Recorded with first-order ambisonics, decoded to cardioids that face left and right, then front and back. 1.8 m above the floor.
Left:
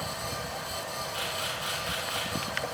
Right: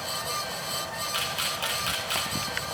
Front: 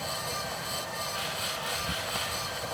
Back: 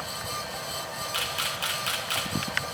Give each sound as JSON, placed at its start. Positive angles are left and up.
{"t": 1.1, "sound": "a camera shutter", "azimuth_deg": -145, "distance_m": 2.0}